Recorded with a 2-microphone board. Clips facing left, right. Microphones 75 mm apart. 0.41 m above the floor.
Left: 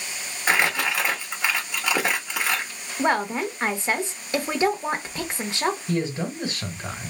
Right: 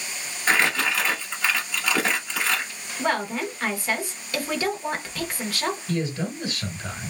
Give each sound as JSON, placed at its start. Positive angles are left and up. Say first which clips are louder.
{"t": 0.5, "sound": "crumpling", "louder": "even", "side_deg": 15, "distance_m": 1.3}
{"t": 3.0, "sound": "a woman speaking", "louder": "left 3 dB", "side_deg": 25, "distance_m": 0.8}
{"t": 5.9, "sound": "a man speaking", "louder": "left 1 dB", "side_deg": 25, "distance_m": 1.6}